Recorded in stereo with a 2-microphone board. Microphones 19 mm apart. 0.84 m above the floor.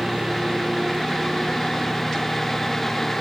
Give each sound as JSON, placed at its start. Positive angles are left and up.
{"t": 0.0, "sound": "a lawn mower", "side_deg": -30}